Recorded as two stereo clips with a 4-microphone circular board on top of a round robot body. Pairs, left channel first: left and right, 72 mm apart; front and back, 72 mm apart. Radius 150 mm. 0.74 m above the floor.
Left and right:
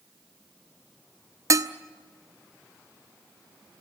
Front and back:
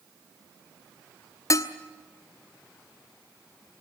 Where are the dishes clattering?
45° right, 1.2 m.